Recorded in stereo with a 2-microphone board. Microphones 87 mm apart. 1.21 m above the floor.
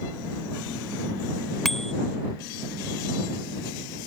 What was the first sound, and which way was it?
A bicycle bell, 5° left (ahead or behind).